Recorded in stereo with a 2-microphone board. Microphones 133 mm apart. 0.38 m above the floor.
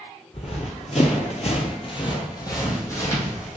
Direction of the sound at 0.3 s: 50° left (ahead or behind).